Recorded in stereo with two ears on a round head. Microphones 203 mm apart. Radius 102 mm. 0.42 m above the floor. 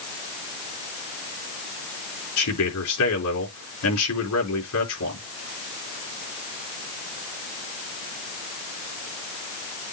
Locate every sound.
2.4 s a man speaking: 80° left, 5 m